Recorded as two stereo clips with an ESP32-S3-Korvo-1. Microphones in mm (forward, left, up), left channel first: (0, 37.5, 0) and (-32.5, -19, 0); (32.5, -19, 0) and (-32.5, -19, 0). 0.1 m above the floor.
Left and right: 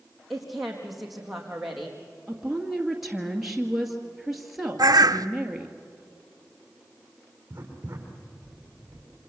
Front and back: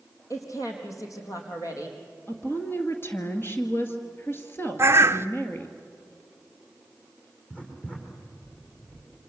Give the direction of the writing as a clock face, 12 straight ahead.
2 o'clock.